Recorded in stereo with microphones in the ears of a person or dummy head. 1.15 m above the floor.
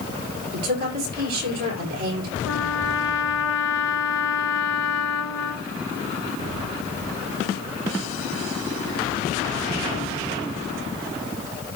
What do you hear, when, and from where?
0.5 s a woman speaking: 50° right (ahead or behind), 6 m
2.5 s a trumpet: 70° left (ahead or behind), 3 m